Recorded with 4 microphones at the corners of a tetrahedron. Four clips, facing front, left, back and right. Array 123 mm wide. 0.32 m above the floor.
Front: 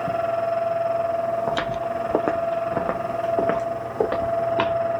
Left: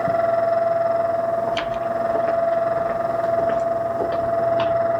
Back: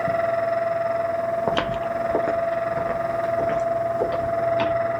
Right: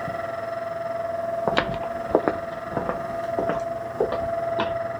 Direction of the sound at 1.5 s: 120° right.